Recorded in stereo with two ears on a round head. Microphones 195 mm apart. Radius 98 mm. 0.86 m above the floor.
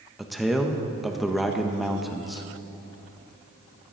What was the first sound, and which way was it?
A man speaking, centre (ahead or behind).